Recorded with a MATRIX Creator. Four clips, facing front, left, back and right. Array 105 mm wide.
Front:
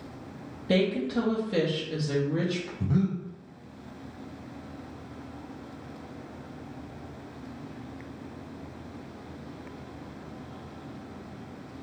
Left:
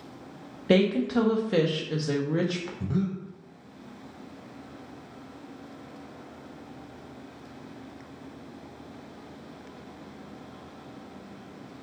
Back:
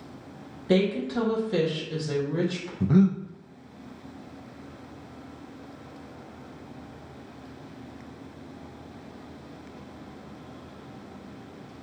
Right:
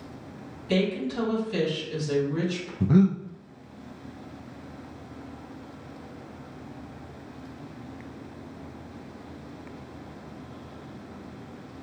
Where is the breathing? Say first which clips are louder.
Right 10 dB, back 8 dB; 130° right, 0.5 m.